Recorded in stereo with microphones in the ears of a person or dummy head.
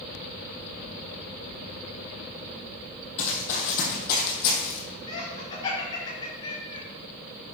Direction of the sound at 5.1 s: 30° left (ahead or behind).